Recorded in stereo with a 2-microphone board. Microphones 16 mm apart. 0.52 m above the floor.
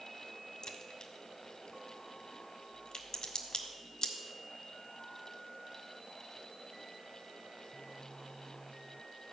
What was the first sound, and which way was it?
A crack, 40° left (ahead or behind).